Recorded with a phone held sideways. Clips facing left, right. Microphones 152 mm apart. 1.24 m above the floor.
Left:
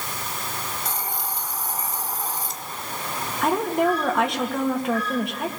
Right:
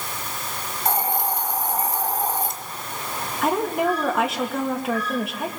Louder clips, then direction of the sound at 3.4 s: Left 1 dB; 5° right (ahead or behind).